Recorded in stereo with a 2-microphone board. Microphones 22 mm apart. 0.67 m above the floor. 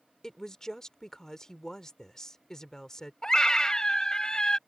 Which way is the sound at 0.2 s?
25° left (ahead or behind).